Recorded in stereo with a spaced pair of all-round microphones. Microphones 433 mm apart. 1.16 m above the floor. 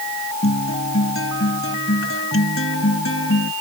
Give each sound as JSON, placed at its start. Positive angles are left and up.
{"t": 0.4, "sound": "a guitar", "side_deg": 30}